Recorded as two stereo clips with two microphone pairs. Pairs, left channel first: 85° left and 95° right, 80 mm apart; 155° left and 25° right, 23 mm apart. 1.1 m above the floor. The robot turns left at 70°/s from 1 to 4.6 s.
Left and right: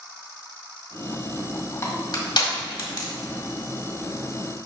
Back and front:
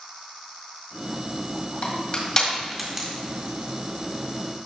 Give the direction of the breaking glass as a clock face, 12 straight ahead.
No breaking glass in this recording.